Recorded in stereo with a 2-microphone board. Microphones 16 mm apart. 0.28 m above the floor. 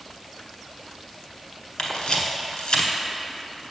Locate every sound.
1.8 s a camera shutter: 55° left (ahead or behind), 1.1 m